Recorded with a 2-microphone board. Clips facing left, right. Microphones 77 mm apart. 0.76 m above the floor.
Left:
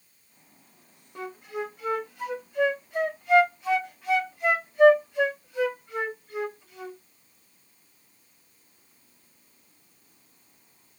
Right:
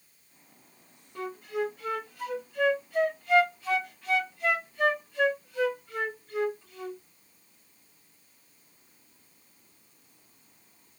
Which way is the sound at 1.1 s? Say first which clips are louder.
Right 2 dB; 15° left (ahead or behind).